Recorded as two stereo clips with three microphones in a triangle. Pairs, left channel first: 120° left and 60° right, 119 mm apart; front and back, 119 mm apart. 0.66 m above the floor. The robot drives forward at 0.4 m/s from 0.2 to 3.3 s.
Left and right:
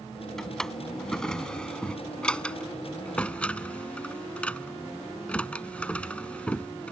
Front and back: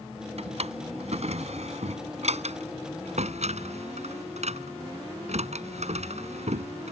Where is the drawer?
155° right; by 6.9 s 160° right.